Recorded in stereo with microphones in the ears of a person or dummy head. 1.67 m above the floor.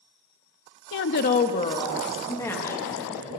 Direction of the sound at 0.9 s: 65° left (ahead or behind).